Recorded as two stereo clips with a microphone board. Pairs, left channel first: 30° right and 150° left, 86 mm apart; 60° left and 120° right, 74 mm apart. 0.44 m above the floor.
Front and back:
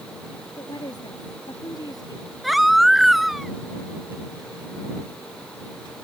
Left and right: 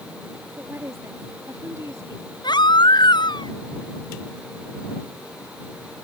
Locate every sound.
0.6 s a woman speaking: 65° right; by 2.3 s 75° right
2.4 s a baby crying: 60° left